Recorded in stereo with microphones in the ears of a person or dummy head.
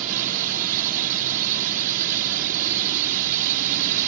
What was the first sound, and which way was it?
A drone, 50° right (ahead or behind).